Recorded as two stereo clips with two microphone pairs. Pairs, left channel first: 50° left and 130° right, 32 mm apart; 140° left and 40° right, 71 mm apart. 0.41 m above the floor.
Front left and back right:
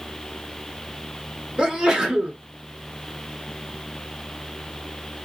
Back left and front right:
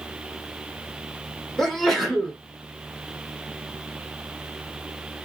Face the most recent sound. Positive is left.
turn(degrees=-140)